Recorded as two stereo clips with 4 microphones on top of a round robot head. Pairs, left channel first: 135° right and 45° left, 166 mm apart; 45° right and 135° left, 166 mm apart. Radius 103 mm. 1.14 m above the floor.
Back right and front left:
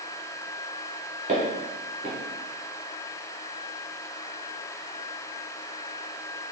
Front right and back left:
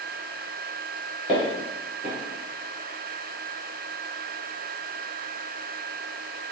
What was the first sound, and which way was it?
Footsteps, 55° left.